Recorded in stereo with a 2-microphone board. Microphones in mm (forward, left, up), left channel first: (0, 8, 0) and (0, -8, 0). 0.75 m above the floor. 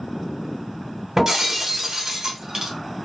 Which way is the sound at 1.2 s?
25° right (ahead or behind).